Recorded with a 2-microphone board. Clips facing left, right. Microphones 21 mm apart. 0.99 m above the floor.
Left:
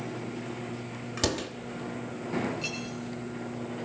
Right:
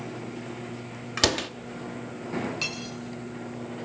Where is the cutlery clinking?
70° right (ahead or behind), 6 m.